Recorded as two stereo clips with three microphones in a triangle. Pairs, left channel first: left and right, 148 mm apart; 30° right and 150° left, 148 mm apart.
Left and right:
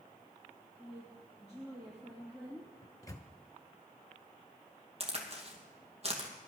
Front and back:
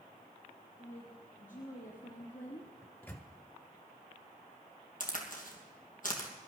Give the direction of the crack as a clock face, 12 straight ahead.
2 o'clock.